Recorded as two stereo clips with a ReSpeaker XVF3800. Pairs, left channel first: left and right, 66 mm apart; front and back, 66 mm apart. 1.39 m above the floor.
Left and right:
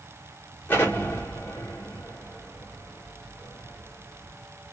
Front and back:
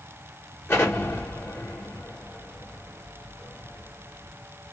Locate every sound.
0.7 s an explosion: 40° left, 1.5 m